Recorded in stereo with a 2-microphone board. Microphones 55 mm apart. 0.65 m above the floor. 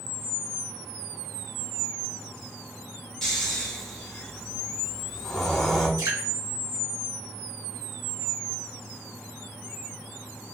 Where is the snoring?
10° left (ahead or behind), 1.2 m.